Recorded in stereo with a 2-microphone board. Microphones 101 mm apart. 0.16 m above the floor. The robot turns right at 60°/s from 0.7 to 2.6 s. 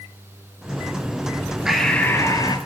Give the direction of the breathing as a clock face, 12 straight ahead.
12 o'clock.